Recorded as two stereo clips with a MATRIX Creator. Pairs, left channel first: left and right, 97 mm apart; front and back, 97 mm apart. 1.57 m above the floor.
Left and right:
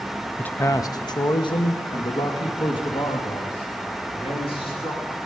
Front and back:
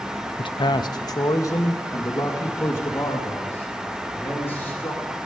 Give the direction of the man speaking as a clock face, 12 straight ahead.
12 o'clock.